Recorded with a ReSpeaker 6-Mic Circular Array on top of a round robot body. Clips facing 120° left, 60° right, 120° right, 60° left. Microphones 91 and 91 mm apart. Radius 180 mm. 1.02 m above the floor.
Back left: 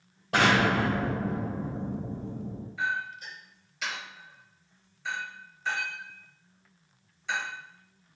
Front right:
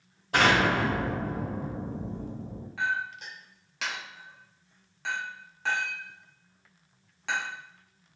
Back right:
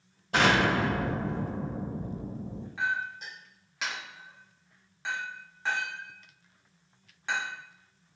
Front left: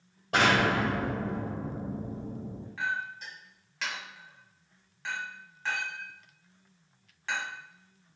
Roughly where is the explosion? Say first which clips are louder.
Even, even; left.